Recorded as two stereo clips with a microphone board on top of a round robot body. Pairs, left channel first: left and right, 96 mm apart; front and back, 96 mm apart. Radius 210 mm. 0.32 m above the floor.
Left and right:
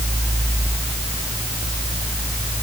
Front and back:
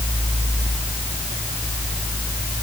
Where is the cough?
No cough in this recording.